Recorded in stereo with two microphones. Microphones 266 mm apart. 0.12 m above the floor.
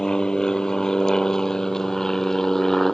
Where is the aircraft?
5° left (ahead or behind); by 2.9 s centre (ahead or behind).